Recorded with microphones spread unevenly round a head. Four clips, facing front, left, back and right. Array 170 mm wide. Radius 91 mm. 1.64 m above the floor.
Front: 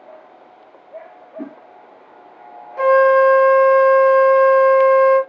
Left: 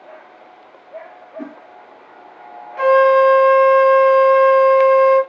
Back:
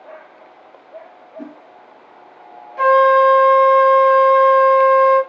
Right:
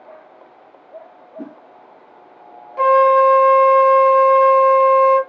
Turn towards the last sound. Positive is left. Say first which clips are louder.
# even, even
turn(degrees=-20)